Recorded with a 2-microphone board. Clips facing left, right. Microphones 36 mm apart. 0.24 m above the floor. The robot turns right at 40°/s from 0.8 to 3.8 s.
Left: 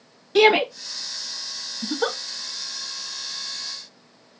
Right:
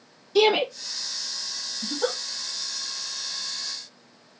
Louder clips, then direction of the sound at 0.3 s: Left 4 dB; 50° left (ahead or behind).